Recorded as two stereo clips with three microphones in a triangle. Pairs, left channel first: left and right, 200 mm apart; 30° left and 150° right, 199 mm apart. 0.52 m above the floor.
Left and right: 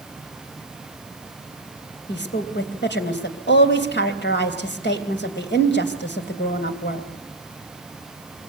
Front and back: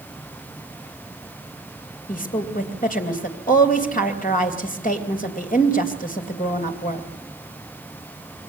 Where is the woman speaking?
70° left, 3 m.